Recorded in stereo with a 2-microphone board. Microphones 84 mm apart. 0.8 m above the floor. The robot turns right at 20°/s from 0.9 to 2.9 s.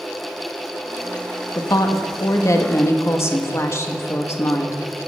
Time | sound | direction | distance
1.6 | a woman speaking | 45° left (ahead or behind) | 1.1 m